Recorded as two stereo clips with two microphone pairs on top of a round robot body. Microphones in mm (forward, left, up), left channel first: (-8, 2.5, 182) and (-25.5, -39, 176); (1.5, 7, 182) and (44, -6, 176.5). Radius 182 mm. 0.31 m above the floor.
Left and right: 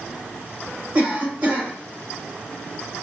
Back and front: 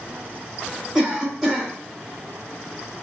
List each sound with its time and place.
0.9 s a cough: 95° right, 2.0 m